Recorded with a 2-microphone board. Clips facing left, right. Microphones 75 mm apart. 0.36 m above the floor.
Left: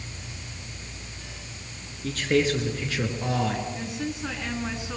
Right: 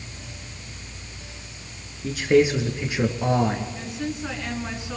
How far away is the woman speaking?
About 5 m.